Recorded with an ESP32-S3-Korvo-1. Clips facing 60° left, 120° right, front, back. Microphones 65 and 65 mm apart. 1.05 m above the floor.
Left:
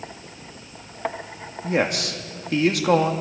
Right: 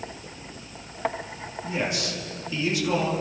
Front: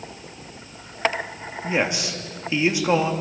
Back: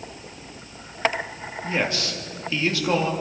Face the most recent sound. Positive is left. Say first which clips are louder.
# left 6 dB, front 2 dB
turn(degrees=70)